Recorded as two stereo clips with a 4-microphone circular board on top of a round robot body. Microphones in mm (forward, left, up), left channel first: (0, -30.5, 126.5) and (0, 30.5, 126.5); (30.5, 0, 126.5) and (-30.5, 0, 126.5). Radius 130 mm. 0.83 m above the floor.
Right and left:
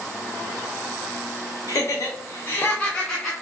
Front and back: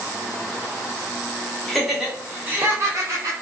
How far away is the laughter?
About 0.8 m.